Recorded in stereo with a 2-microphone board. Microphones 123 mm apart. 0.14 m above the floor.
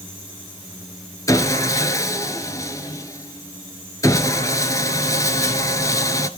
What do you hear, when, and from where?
1.3 s sawing: 30° left (ahead or behind), 1.2 m